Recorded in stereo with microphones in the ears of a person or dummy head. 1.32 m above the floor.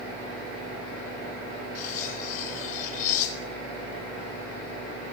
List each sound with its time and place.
1.8 s cutlery clinking: 45° left (ahead or behind), 3.5 m